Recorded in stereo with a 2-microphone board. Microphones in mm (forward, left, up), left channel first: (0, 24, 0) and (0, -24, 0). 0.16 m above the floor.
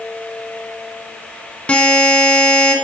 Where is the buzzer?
25° left (ahead or behind), 1.3 m.